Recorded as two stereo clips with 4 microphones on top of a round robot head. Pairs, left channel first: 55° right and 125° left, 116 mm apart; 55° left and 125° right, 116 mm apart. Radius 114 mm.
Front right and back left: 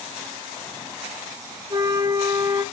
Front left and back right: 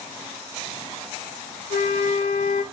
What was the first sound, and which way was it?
A flute, 65° left.